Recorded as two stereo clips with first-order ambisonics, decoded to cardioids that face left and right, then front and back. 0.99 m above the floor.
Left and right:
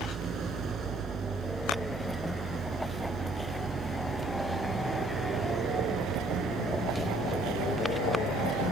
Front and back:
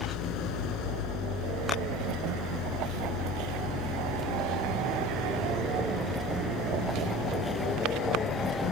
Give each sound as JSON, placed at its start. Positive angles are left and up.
{"t": 0.0, "sound": "an engine running", "azimuth_deg": -35}